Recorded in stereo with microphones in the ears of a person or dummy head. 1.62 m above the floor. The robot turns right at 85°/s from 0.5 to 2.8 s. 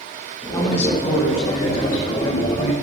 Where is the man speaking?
15° left, 1.9 m; by 2.7 s 155° right, 1.9 m.